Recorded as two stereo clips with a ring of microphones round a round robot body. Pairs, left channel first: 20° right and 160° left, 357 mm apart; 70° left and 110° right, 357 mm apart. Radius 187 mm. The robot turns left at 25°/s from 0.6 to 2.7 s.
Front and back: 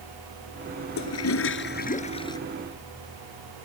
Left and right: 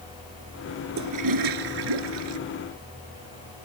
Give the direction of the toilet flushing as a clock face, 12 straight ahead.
2 o'clock.